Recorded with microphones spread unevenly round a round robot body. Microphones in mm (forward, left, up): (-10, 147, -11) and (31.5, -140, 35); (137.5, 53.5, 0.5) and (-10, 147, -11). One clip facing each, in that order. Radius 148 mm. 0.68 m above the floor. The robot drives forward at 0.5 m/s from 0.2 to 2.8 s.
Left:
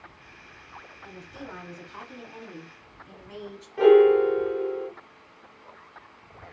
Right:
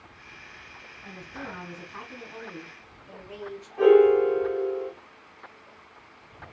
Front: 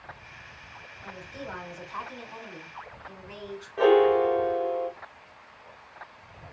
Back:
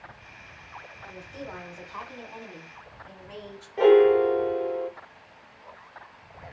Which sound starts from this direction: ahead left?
A woman speaking, at 1.0 s.